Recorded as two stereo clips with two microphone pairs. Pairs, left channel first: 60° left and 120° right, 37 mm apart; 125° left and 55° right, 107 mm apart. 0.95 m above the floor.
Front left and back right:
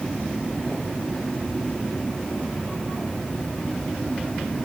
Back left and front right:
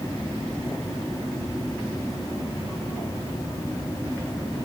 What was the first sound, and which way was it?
Only background noise.